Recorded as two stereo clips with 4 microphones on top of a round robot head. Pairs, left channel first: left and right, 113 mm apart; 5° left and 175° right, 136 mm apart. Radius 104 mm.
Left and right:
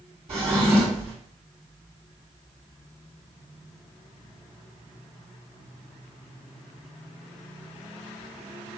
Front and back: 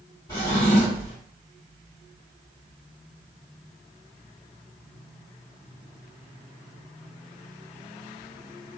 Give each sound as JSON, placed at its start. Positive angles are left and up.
{"t": 0.3, "sound": "a drawer", "azimuth_deg": -65, "distance_m": 1.9}